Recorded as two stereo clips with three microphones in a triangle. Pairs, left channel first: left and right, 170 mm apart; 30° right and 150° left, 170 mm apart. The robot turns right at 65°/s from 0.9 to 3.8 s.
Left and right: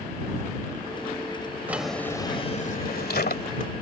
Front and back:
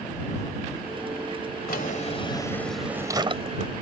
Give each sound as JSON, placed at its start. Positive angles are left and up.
{"t": 1.7, "sound": "a drawer", "azimuth_deg": -10}